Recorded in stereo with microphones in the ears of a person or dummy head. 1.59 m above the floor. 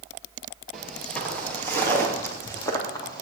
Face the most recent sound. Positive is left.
turn(degrees=15)  # may be behind; listen again after turning